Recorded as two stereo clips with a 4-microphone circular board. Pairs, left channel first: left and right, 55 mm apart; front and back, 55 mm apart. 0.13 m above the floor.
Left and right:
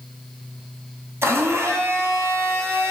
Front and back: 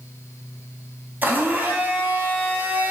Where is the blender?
125° right, 0.8 m.